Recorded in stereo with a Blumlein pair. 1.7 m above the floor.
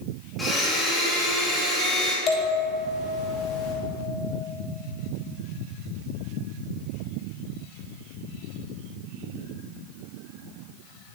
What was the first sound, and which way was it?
A blender, 10° left.